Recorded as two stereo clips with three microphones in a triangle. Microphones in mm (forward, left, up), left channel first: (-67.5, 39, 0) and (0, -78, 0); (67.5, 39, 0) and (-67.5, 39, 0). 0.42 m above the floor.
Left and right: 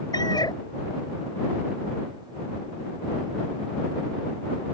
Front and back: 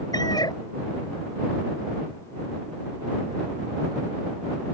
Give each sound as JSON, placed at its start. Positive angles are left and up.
{"t": 0.1, "sound": "a cat meowing", "azimuth_deg": 60}